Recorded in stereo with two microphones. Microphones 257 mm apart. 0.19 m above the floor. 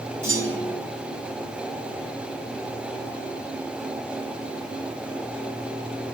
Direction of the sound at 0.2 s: 55° right (ahead or behind).